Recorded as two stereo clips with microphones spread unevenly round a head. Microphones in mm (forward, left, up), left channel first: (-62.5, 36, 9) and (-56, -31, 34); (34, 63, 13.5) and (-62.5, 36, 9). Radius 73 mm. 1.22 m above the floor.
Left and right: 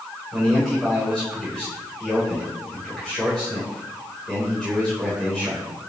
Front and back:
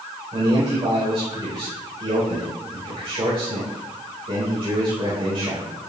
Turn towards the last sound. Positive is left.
turn(degrees=175)